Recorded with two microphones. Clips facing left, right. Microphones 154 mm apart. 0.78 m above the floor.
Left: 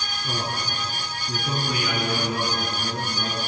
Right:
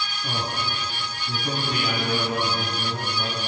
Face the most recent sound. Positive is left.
turn(degrees=-80)